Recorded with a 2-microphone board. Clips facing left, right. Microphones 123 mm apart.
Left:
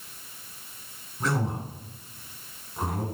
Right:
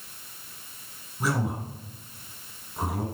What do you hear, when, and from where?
1.2 s a man speaking: 10° right (ahead or behind), 2.0 m